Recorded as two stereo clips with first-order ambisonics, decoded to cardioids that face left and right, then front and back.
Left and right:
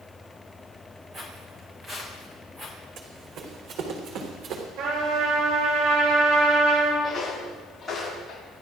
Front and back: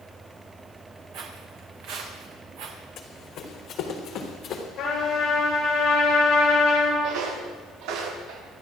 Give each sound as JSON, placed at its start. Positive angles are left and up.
{"t": 1.1, "sound": "footsteps", "azimuth_deg": -160, "distance_m": 3.5}
{"t": 3.0, "sound": "running footsteps", "azimuth_deg": -50, "distance_m": 3.5}
{"t": 4.8, "sound": "a trumpet", "azimuth_deg": -65, "distance_m": 9.0}
{"t": 7.0, "sound": "footsteps", "azimuth_deg": 175, "distance_m": 8.5}